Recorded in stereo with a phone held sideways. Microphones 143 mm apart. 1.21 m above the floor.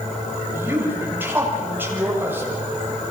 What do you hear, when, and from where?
0.5 s a woman speaking: 15° right (ahead or behind), 7.5 m